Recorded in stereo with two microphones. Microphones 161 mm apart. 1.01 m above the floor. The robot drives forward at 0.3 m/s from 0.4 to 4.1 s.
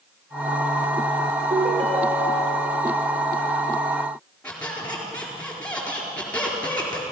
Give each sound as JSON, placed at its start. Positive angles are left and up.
{"t": 1.5, "sound": "a ringtone", "side_deg": -45, "distance_m": 2.0}
{"t": 4.4, "sound": "a squeak", "side_deg": 10, "distance_m": 4.0}